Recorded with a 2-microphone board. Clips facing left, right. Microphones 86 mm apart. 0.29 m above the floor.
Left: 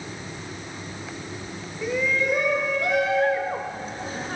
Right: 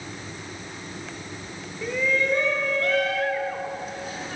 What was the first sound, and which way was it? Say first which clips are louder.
A shout: even; 5° left (ahead or behind).